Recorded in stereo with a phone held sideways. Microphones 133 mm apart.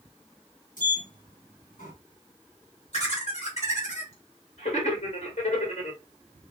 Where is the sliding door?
80° left, 1.5 m.